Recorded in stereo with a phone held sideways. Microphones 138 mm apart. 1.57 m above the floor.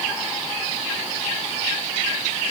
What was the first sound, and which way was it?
Only background noise.